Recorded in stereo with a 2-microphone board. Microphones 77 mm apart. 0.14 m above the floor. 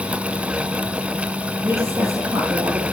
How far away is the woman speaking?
About 4.5 m.